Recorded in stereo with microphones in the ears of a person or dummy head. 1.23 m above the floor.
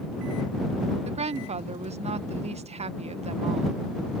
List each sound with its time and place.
1.1 s a woman speaking: 35° right (ahead or behind)